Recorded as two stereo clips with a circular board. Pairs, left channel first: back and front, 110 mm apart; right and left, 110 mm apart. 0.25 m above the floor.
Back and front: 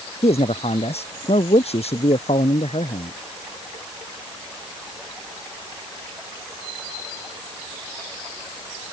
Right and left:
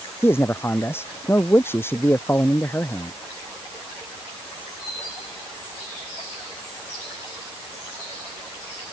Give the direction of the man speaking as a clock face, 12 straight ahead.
5 o'clock.